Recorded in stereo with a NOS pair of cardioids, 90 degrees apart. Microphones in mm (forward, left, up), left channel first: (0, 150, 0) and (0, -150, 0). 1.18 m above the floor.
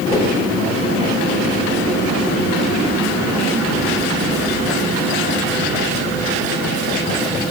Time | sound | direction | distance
0.1 | a whoosh | 15° left | 3.5 m